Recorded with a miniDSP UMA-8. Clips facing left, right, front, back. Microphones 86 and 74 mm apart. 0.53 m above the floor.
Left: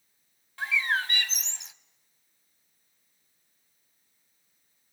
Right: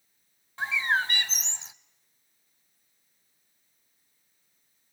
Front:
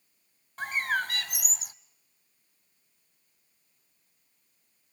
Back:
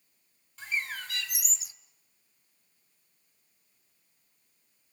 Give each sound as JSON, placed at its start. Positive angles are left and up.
{"t": 0.6, "sound": "a bird", "azimuth_deg": -30, "distance_m": 0.7}